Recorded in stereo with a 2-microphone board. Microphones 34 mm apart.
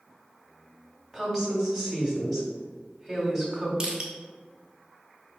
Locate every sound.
1.1 s a woman speaking: 5° left (ahead or behind), 1.9 m
3.8 s crushing: 25° right (ahead or behind), 0.9 m